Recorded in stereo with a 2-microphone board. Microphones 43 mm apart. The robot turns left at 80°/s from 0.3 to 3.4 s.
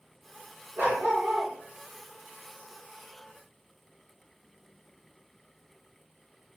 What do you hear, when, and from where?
0.8 s a dog barking: 125° right, 1.9 m; by 1.5 s 175° left, 1.9 m